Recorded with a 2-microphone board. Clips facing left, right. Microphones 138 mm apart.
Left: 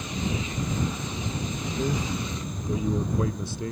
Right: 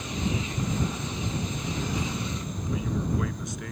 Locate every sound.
1.8 s a man speaking: 35° left (ahead or behind); by 3.7 s 30° left (ahead or behind)